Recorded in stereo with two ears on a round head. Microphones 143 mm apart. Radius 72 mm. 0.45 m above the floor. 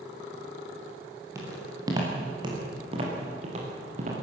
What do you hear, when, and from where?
1.4 s footsteps: 20° right (ahead or behind), 6.5 m; by 4.1 s 50° right (ahead or behind), 6 m